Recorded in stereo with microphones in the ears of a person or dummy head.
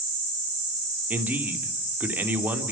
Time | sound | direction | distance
1.1 | a man speaking | 10° right (ahead or behind) | 2.5 m